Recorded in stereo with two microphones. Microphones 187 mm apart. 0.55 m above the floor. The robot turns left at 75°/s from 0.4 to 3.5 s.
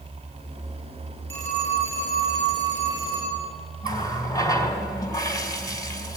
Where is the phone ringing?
10° left, 8 m; by 3.4 s 145° right, 8 m.